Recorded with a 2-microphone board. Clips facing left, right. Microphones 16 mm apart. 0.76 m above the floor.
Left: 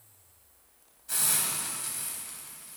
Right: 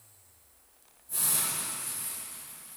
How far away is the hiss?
About 3.5 m.